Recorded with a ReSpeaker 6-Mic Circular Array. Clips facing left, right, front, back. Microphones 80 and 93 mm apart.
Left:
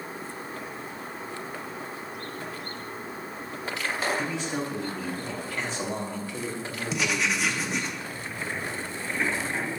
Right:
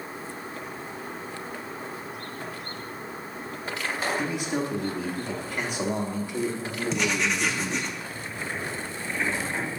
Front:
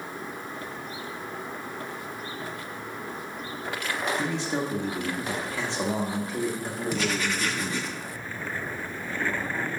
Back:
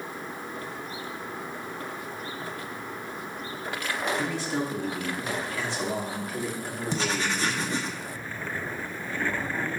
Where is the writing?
175° left, 0.8 m.